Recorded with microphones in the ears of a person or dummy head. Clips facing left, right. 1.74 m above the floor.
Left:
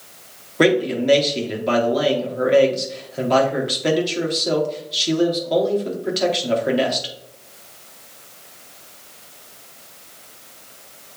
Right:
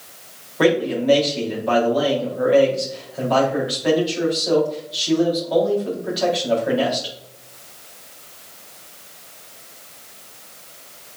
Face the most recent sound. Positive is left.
turn(degrees=40)  # may be behind; listen again after turning